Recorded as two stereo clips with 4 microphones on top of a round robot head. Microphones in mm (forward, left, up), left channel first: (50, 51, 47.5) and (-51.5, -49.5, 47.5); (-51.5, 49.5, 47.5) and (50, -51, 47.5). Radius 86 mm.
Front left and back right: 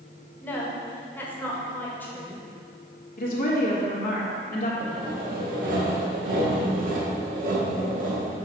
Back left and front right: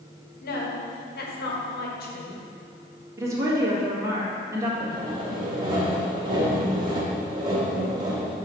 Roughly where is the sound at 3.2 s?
Ahead left.